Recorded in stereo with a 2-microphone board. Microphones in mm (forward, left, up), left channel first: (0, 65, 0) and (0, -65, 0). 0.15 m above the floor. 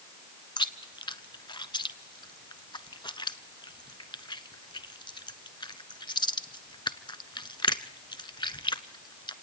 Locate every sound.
0.6 s chewing: 35° left (ahead or behind), 0.7 m